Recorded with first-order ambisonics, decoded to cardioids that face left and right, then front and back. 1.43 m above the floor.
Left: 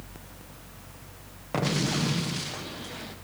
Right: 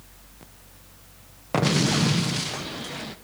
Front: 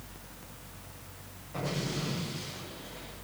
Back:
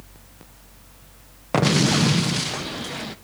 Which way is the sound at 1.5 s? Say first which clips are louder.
Right 5 dB, back 16 dB; 160° right.